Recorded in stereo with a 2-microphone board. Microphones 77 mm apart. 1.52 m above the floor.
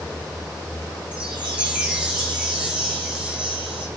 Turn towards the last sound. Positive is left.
turn(degrees=-15)  # may be behind; listen again after turning